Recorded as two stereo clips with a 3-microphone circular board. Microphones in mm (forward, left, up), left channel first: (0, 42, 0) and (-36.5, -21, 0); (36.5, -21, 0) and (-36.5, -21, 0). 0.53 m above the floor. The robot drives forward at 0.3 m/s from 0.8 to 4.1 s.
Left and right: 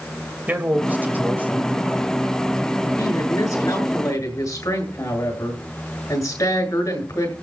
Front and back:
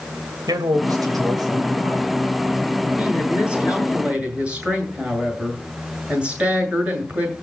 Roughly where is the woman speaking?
Left.